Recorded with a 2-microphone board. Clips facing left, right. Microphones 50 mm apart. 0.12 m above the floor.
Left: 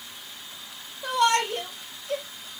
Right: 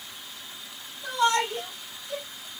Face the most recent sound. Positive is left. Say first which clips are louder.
# left 2 dB
turn(degrees=55)  # may be behind; listen again after turning